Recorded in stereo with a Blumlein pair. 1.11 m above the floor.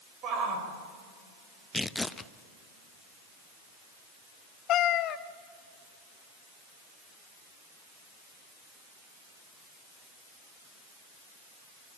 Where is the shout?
35° right, 5.5 m.